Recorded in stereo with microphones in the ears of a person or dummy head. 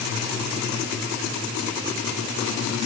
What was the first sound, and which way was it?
Only background noise.